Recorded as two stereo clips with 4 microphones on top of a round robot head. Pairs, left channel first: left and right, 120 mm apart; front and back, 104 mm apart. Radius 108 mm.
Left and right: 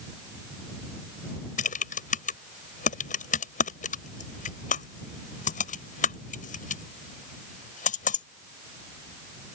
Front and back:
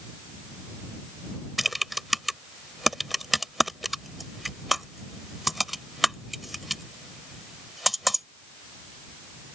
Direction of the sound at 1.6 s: 90° left.